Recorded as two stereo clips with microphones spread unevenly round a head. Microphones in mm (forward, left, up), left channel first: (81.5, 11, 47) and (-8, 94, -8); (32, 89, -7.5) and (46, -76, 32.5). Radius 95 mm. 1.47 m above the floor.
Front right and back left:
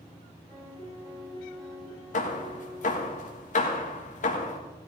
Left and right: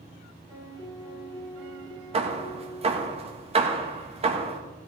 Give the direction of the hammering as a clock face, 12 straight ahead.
1 o'clock.